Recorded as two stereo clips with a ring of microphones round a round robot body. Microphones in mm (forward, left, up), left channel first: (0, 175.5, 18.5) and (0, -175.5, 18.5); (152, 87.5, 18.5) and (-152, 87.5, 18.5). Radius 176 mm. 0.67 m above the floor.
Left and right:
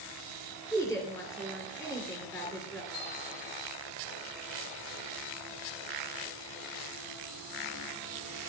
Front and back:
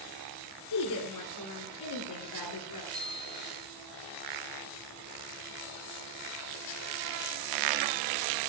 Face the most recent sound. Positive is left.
turn(degrees=70)